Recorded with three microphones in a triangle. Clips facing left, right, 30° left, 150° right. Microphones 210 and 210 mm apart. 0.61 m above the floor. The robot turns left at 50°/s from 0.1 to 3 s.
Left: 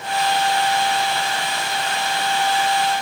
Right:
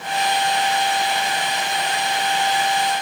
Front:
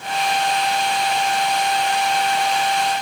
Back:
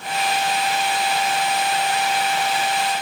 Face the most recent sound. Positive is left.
No sound to turn to.